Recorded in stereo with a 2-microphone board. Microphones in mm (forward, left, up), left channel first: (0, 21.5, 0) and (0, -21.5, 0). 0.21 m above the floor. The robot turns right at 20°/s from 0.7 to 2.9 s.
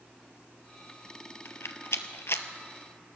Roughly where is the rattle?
Left.